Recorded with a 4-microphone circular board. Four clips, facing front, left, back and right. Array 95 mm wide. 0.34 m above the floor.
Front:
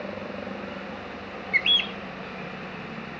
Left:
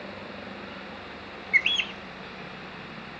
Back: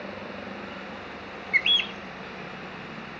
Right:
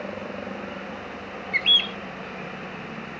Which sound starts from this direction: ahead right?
A helicopter, at 0.0 s.